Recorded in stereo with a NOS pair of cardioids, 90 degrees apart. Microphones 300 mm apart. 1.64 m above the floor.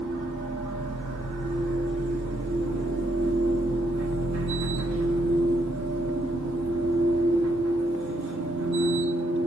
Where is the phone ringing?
I don't hear a phone ringing.